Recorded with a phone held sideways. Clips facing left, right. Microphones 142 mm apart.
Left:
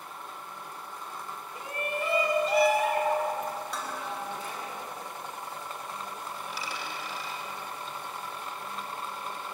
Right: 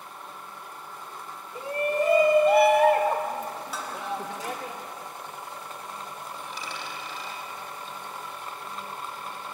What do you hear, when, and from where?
1.6 s a shout: 30° right (ahead or behind), 1.8 m; by 4.7 s 75° right (ahead or behind), 2.5 m
3.7 s dishes clattering: 5° right (ahead or behind), 3.5 m
6.4 s a dropped coin: 5° left (ahead or behind), 3.5 m